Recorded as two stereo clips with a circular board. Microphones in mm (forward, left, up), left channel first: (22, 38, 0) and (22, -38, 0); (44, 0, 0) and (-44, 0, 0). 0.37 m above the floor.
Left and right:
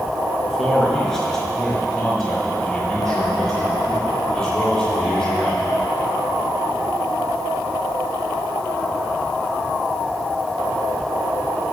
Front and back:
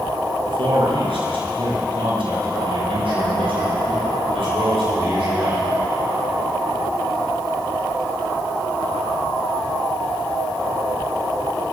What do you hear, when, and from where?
0.5 s a man speaking: 175° left, 4 m